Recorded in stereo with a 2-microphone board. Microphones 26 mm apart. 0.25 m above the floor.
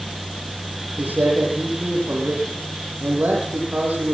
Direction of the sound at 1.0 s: 80° right.